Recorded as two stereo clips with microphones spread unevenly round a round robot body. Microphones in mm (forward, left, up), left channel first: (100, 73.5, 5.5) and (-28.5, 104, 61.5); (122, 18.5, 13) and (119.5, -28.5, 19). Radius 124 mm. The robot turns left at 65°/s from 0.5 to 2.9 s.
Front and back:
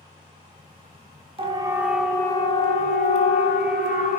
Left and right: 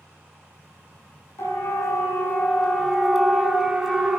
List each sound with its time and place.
1.4 s a siren: 115° left, 5.5 m; by 4.2 s 10° right, 6.5 m